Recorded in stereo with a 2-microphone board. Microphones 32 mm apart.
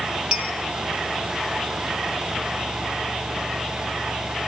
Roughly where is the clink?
Centre.